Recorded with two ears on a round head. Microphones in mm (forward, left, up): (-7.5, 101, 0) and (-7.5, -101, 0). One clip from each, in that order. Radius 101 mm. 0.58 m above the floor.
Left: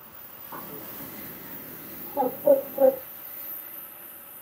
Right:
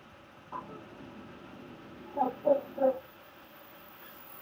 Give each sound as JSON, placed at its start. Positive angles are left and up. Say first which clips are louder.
{"t": 0.5, "sound": "a bird", "louder": "left 2 dB", "side_deg": 15, "distance_m": 0.6}